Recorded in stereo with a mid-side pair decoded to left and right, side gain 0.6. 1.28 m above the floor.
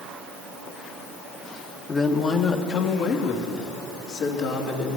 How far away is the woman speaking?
About 1.1 m.